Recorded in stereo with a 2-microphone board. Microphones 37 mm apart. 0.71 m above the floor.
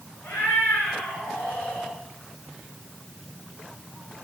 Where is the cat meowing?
85° left, 5 m; by 1.9 s 80° left, 4.5 m.